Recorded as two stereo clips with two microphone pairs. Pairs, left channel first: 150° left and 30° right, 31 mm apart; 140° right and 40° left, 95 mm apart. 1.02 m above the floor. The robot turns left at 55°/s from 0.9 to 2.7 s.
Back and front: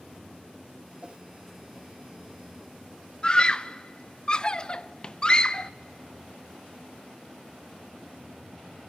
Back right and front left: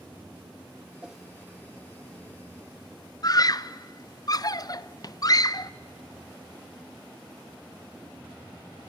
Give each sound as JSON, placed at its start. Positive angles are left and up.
{"t": 1.0, "sound": "a whoosh", "azimuth_deg": -30, "distance_m": 0.8}
{"t": 3.2, "sound": "a scream", "azimuth_deg": -165, "distance_m": 0.6}